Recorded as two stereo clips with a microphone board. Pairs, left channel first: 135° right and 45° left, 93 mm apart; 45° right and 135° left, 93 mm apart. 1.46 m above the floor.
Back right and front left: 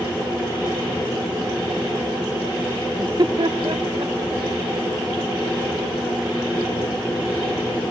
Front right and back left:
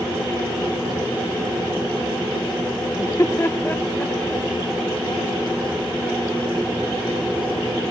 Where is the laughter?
5° left, 0.7 m; by 4.4 s 30° left, 1.6 m.